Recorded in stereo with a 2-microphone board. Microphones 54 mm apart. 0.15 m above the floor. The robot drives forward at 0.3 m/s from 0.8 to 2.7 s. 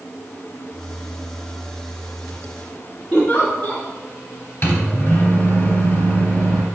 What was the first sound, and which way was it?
A giggle, 40° left (ahead or behind).